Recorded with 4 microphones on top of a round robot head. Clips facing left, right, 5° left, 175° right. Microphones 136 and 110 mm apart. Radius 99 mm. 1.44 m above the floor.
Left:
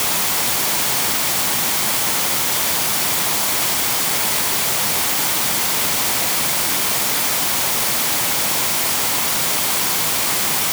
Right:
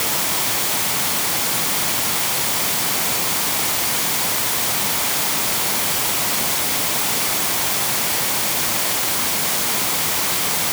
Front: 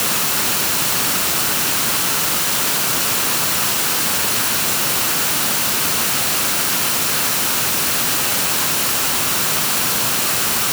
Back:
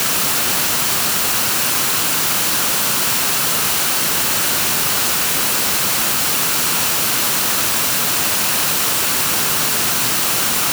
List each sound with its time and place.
Only background noise.